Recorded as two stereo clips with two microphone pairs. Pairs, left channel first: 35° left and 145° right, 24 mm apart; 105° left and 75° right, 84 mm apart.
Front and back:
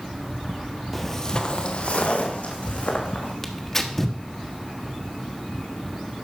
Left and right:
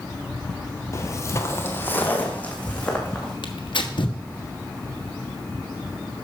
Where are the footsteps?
120° left, 1.1 m; by 3.3 s 30° left, 3.5 m.